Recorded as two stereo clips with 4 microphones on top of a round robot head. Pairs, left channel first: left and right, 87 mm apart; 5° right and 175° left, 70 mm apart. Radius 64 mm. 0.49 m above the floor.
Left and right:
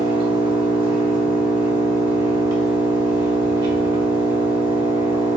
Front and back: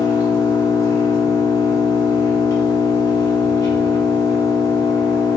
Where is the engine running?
50° right, 1.4 m.